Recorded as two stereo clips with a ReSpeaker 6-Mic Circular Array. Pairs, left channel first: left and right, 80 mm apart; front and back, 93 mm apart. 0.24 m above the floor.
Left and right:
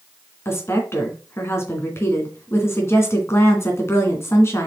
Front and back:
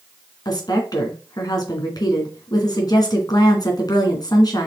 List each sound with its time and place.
0.5 s a woman speaking: 35° left, 2.5 m